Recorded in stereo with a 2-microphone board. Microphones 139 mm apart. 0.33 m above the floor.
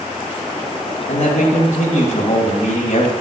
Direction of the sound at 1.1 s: 60° left (ahead or behind).